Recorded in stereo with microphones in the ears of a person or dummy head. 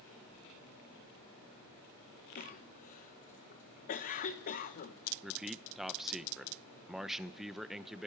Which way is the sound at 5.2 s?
Centre (ahead or behind).